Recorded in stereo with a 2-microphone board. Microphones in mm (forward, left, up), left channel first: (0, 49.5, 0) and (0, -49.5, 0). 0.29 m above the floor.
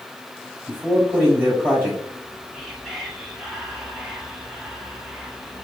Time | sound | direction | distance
0.7 | a man speaking | 15° right (ahead or behind) | 1.7 m
2.1 | whispering | 5° right (ahead or behind) | 1.3 m